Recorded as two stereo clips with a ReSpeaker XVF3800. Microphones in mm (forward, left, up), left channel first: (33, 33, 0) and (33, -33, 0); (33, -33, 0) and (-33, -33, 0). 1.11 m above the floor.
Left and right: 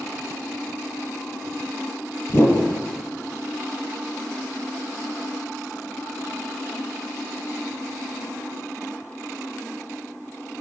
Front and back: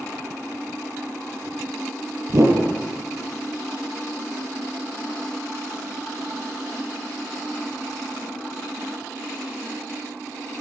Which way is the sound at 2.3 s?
140° left.